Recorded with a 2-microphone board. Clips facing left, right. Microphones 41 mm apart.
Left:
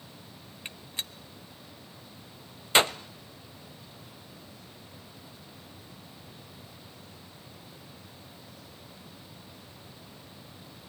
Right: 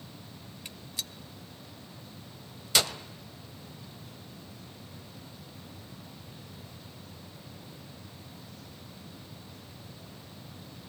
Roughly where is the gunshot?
Left.